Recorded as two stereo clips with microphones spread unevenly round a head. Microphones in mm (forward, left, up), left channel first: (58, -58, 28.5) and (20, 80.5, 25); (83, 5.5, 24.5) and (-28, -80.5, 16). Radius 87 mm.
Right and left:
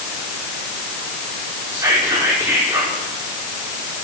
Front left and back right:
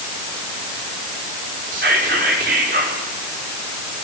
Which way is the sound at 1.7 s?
Straight behind.